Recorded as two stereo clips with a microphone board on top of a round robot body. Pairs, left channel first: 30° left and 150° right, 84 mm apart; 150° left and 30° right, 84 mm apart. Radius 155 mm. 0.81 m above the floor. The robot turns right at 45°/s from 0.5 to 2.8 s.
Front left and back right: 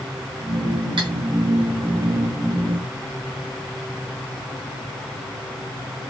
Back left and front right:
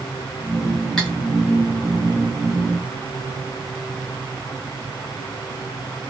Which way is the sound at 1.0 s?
125° right.